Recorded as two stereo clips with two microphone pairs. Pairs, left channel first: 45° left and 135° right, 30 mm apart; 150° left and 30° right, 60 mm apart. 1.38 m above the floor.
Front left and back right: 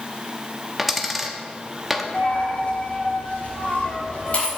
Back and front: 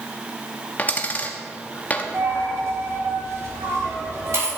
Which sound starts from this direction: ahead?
A dropped coin, at 2.1 s.